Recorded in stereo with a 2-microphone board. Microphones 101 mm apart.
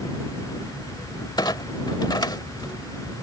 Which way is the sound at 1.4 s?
45° left (ahead or behind).